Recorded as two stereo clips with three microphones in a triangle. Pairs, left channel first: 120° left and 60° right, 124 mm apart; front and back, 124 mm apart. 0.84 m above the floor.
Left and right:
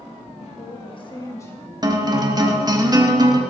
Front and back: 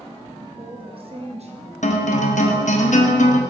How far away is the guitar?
About 0.8 m.